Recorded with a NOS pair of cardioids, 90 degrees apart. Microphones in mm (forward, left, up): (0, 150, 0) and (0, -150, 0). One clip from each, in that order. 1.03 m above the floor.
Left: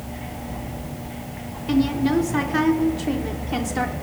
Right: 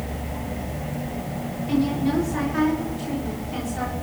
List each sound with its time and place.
1.7 s a woman speaking: 55° left, 5 m; by 3.9 s 65° left, 4.5 m